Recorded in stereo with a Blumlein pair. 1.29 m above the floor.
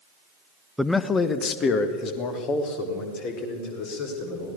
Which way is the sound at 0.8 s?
Straight ahead.